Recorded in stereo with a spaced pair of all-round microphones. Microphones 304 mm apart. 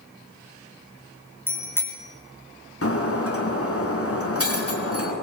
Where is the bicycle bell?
5° left (ahead or behind), 3.5 m.